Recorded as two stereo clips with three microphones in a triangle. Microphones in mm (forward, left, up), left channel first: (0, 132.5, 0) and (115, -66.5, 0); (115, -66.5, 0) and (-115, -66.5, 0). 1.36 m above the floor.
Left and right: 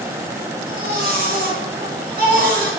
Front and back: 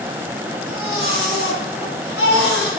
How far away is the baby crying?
About 5.5 m.